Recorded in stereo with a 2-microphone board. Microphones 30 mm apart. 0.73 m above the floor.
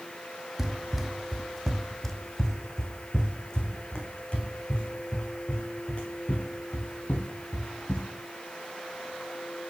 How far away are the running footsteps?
About 1.4 m.